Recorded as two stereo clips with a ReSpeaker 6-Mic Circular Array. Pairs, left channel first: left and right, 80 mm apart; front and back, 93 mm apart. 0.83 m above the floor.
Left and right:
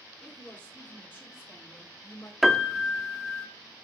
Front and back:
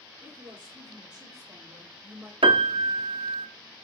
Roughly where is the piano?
Behind.